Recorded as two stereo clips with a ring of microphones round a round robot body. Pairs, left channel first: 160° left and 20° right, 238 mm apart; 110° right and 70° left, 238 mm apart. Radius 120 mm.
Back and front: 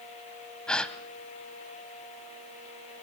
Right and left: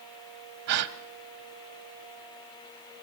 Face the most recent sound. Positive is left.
turn(degrees=70)